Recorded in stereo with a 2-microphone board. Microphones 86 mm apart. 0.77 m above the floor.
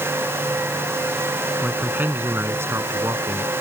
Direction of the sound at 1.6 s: 20° right (ahead or behind).